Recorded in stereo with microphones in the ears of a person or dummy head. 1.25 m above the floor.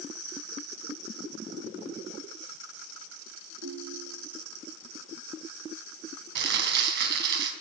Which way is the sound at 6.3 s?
70° right (ahead or behind).